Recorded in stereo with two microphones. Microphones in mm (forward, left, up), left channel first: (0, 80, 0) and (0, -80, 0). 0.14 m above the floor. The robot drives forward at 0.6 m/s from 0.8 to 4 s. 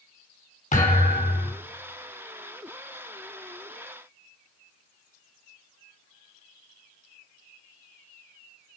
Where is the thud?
50° left (ahead or behind), 3 m; by 1.5 s 55° left (ahead or behind), 2.5 m.